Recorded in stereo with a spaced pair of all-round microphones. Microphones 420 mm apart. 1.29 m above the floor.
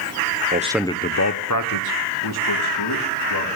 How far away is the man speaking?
About 0.6 m.